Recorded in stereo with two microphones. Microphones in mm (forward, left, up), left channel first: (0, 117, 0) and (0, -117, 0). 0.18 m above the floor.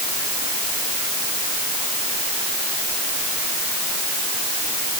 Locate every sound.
Only background noise.